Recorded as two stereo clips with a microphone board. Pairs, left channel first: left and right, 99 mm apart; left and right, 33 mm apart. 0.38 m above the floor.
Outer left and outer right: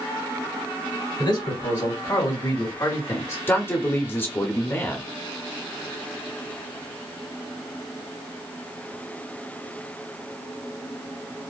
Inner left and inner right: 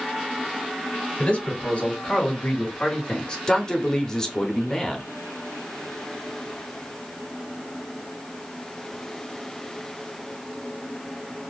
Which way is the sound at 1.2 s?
50° left (ahead or behind).